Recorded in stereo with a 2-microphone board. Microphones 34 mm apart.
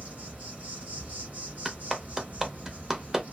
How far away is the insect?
About 2.5 m.